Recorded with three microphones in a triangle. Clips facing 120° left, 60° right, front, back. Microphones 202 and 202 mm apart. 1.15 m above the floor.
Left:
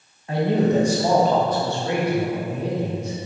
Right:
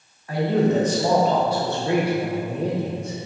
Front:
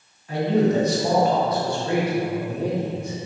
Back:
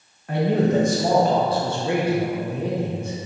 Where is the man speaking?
175° right, 1.2 m; by 3.3 s 65° right, 1.2 m.